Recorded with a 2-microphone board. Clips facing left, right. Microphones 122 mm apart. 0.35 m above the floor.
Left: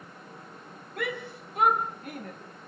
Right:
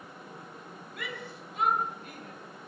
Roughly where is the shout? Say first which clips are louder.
Left 8 dB; left.